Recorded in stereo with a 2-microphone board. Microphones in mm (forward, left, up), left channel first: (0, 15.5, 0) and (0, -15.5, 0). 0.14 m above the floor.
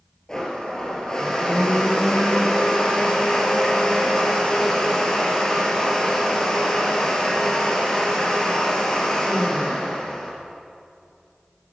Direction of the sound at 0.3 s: 20° left (ahead or behind).